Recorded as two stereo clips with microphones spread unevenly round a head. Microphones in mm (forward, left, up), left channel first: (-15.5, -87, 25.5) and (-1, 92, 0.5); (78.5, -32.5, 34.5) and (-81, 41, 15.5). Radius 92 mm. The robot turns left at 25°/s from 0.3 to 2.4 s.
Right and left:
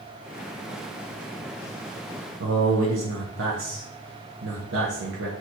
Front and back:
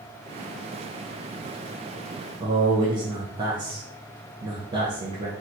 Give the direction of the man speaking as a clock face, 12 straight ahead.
9 o'clock.